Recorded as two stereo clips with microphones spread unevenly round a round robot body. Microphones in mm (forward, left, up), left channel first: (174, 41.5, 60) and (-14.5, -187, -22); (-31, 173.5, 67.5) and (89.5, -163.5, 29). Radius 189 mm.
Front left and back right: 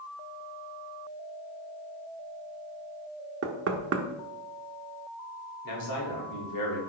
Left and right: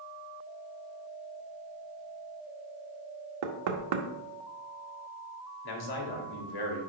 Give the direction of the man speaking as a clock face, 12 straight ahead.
9 o'clock.